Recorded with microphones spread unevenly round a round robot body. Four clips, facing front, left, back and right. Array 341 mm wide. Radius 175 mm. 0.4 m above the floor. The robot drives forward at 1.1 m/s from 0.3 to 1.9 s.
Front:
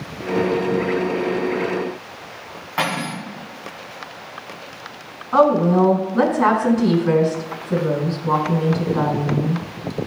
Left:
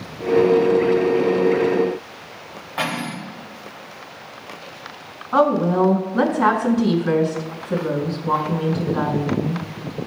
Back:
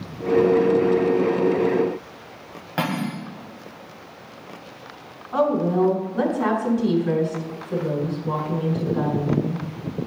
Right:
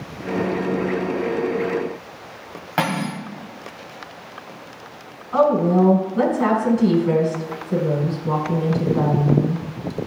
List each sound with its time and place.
2.8 s cutlery clinking: 130° right, 1.7 m
5.3 s a woman speaking: 50° left, 4 m